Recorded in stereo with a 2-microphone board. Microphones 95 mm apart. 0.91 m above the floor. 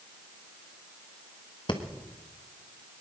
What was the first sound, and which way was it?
Breathing, 55° left (ahead or behind).